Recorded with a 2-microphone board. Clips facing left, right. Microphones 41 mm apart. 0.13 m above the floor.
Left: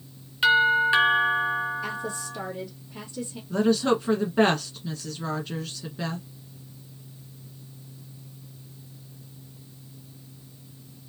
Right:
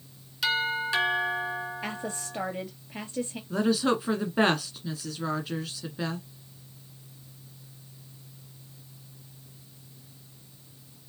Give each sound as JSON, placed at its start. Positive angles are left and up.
{"t": 0.4, "sound": "a doorbell", "side_deg": 35, "distance_m": 2.0}
{"t": 1.8, "sound": "a woman speaking", "side_deg": -45, "distance_m": 2.0}
{"t": 3.5, "sound": "a woman speaking", "side_deg": -5, "distance_m": 1.1}